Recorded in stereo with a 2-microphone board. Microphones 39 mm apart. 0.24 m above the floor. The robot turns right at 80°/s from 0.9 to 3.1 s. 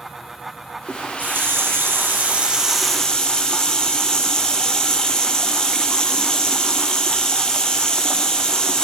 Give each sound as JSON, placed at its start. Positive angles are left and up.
{"t": 0.9, "sound": "a running tap", "azimuth_deg": -160, "distance_m": 4.5}